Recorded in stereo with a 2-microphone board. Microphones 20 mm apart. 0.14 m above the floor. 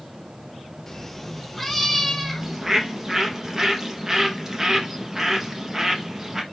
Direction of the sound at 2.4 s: 25° right (ahead or behind).